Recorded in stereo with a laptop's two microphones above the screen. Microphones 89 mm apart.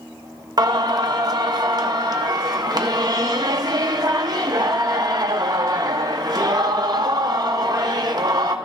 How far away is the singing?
About 0.6 m.